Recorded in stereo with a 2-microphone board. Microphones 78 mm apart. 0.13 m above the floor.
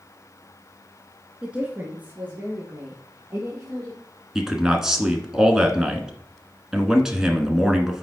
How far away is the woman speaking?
About 1.3 m.